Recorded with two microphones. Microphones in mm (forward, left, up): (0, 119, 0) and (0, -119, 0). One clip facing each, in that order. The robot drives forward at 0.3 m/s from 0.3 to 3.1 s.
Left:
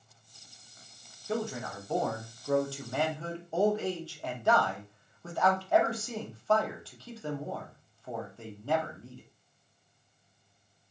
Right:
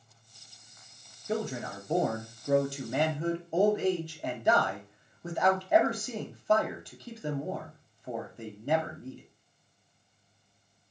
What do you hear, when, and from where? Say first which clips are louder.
1.3 s a man speaking: right 1 dB; 20° right (ahead or behind), 0.7 m; by 9.2 s 15° right (ahead or behind), 0.7 m